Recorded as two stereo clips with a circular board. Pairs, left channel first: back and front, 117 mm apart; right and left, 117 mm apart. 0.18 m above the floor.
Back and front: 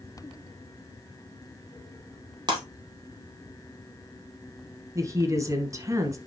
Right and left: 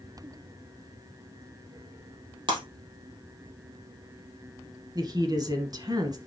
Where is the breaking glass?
50° left, 2.5 m.